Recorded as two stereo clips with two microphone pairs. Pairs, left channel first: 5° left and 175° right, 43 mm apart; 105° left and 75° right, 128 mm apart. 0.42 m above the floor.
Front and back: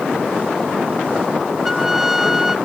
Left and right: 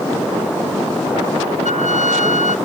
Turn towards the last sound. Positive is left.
turn(degrees=105)